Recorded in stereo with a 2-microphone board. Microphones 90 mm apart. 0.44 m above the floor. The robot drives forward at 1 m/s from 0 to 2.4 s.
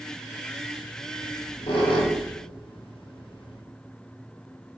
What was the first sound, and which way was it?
A squeak, 85° left.